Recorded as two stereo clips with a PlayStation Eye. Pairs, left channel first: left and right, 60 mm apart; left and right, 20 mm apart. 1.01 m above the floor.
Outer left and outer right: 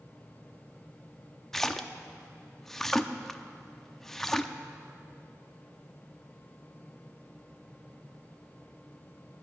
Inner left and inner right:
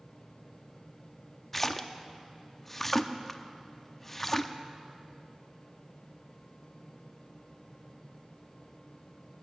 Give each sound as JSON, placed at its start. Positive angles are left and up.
{"t": 1.5, "sound": "a splash", "side_deg": 5, "distance_m": 0.6}